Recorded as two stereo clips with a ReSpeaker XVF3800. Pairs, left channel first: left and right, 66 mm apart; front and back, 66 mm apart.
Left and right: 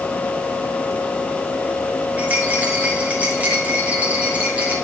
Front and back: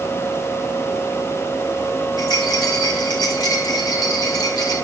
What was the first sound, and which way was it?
A rattle, 20° right.